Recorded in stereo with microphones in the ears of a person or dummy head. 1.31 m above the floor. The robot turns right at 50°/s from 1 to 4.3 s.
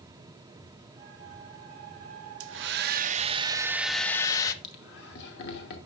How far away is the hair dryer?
About 0.8 m.